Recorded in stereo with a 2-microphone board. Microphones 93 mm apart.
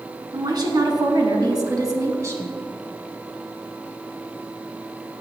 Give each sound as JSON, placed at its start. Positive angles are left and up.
{"t": 0.3, "sound": "a woman speaking", "side_deg": -45, "distance_m": 1.7}